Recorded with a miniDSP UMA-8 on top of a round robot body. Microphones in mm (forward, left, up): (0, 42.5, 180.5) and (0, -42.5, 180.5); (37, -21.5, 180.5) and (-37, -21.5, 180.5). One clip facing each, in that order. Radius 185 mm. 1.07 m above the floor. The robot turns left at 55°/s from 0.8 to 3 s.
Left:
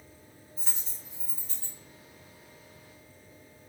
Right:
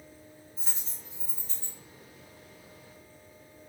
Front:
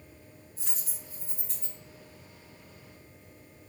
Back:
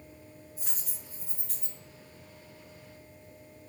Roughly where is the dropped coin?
Behind right.